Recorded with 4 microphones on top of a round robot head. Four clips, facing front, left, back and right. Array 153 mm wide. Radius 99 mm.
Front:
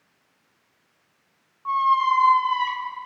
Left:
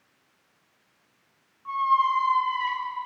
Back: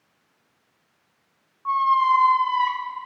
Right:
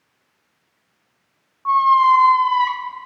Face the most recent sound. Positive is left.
turn(degrees=-85)